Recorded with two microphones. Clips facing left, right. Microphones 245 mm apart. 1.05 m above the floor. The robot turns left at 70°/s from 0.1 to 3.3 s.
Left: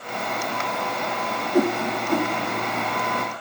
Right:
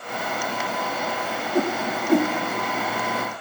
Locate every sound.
1.5 s a whoosh: 15° left (ahead or behind), 1.5 m; by 2.3 s 40° right (ahead or behind), 1.5 m